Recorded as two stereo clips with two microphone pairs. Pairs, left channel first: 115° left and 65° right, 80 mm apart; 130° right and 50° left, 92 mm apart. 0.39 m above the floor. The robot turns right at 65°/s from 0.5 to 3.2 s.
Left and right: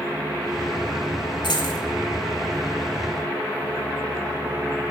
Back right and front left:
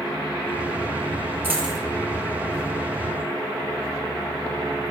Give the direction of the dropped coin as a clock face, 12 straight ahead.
8 o'clock.